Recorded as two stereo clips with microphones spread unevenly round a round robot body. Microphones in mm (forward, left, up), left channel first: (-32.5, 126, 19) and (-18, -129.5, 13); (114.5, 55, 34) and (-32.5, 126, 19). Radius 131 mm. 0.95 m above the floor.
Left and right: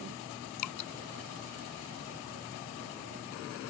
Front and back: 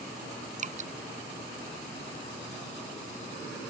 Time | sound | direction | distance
0.6 | dripping | 110° left | ?